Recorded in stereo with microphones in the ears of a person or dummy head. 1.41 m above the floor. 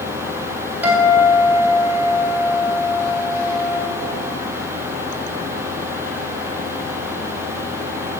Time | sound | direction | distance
0.8 | a guitar | 5° right (ahead or behind) | 3 m